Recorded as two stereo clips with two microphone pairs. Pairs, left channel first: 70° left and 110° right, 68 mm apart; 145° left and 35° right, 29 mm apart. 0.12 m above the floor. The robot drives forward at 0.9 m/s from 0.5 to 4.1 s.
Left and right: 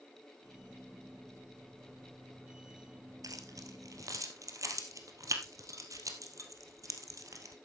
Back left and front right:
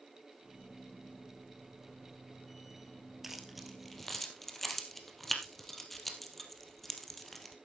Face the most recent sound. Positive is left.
turn(degrees=-140)